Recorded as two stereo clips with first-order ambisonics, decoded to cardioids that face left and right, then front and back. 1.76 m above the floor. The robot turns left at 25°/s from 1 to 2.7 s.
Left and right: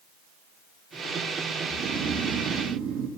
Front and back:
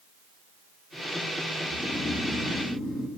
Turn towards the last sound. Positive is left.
turn(degrees=-95)